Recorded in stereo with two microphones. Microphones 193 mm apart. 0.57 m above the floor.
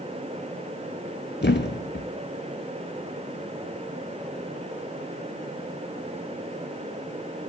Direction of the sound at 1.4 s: 65° left (ahead or behind).